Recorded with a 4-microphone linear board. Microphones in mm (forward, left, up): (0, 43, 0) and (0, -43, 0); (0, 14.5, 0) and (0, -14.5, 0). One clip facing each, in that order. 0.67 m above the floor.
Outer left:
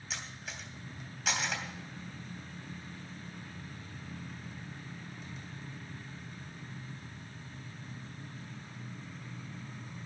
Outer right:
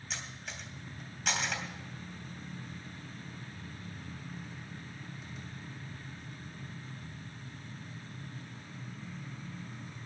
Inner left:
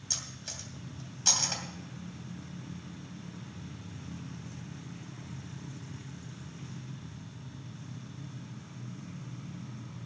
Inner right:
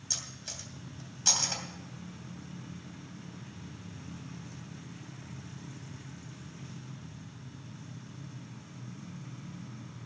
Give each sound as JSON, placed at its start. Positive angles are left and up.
{"t": 0.1, "sound": "cutlery clinking", "side_deg": 0, "distance_m": 2.5}